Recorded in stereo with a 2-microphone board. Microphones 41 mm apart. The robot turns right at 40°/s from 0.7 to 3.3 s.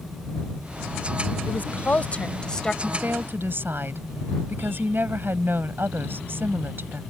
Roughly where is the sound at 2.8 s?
Right.